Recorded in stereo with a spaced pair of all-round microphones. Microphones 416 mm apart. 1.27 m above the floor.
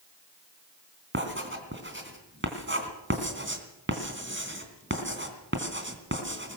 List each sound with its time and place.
1.1 s writing: 30° right (ahead or behind), 3 m